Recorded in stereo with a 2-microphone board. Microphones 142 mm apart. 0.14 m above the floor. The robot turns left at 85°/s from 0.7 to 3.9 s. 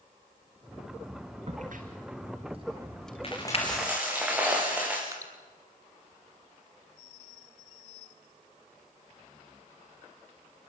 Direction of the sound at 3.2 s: 45° left.